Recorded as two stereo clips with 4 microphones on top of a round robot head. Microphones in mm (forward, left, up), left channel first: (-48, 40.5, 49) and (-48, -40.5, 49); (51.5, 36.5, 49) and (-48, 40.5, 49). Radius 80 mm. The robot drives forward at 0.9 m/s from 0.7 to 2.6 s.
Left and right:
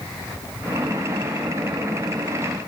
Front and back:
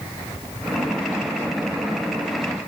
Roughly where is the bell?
I don't hear a bell.